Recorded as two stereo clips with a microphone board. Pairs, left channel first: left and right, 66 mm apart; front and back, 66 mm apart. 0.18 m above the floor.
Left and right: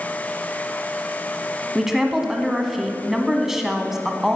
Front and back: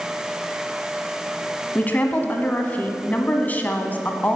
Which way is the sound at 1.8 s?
10° right.